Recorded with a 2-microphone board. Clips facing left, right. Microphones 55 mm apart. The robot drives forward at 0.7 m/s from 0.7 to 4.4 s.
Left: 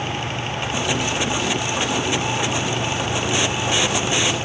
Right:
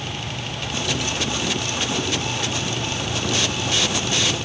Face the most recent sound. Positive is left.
No sound to turn to.